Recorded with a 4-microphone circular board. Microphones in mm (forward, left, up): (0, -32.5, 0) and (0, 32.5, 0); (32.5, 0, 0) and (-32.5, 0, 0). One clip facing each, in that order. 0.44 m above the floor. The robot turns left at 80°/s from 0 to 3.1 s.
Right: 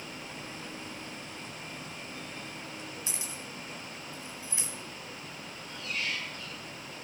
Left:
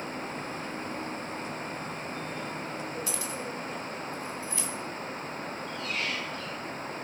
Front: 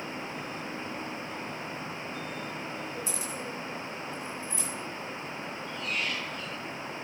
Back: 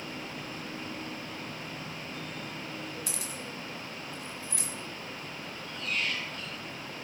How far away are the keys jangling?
About 3 m.